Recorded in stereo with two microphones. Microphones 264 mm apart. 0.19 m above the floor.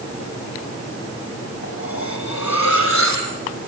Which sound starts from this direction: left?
Cutlery clinking, at 1.6 s.